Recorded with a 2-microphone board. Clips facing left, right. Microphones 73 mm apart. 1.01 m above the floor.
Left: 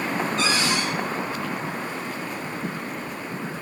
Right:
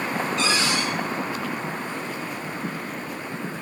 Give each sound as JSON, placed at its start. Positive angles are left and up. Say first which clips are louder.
{"t": 0.4, "sound": "a cupboard door", "louder": "right 1 dB", "side_deg": 40, "distance_m": 6.0}